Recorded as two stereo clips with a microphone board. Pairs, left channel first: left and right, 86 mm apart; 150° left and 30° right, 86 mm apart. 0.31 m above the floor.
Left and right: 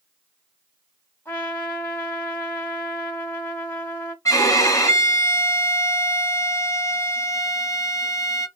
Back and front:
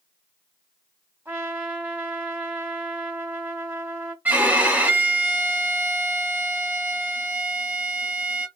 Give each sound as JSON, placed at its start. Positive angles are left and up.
{"t": 1.2, "sound": "a trumpet", "azimuth_deg": 30, "distance_m": 1.3}
{"t": 4.2, "sound": "a violin", "azimuth_deg": 40, "distance_m": 0.7}